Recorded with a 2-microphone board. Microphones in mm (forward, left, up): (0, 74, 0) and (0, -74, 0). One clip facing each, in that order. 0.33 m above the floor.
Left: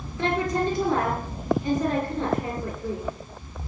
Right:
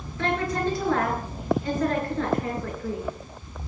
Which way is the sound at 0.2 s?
20° left (ahead or behind).